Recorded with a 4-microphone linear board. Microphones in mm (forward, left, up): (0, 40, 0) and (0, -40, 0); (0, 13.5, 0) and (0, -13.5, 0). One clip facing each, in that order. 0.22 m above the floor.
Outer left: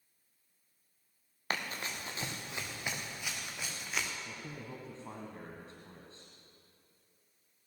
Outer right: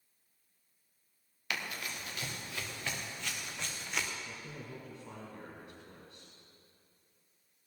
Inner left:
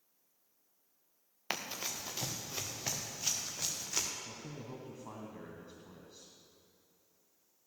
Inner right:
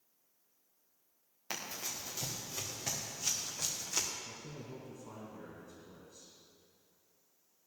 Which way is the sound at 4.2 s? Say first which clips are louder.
Outer left 1 dB, inner left 1 dB; 35° left (ahead or behind).